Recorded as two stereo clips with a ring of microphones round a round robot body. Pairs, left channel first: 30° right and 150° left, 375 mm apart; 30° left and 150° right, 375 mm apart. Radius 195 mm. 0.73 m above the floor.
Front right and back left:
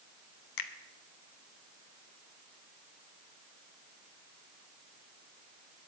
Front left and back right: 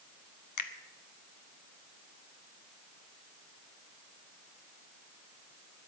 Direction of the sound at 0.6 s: 5° right.